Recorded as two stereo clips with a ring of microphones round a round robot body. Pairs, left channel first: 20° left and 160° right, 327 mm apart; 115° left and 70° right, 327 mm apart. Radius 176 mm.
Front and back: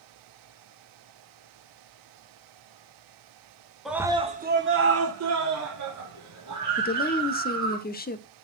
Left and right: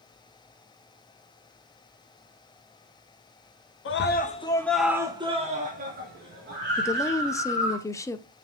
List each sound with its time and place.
3.9 s a scream: 115° left, 1.7 m; by 7.8 s 120° right, 5.5 m
6.8 s a woman speaking: 40° left, 0.8 m